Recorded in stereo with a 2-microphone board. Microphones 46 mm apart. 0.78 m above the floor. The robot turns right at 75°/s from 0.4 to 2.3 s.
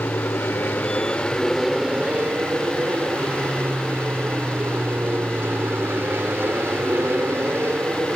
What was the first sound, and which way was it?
An aircraft, 60° left (ahead or behind).